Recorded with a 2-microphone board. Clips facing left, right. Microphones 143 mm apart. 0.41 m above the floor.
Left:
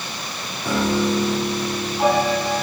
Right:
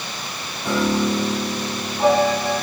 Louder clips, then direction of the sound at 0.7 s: Even; 10° left (ahead or behind).